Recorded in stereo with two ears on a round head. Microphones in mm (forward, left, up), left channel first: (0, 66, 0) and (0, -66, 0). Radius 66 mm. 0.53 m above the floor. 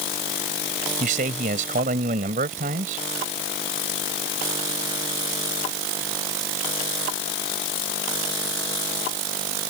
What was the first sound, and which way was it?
A man speaking, 60° right (ahead or behind).